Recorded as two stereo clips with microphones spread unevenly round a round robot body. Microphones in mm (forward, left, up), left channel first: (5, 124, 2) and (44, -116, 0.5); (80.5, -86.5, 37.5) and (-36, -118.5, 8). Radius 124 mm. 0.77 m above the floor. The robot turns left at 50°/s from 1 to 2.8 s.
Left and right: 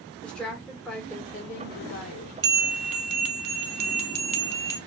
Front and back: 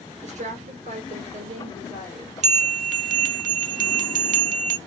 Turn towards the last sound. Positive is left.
turn(degrees=-145)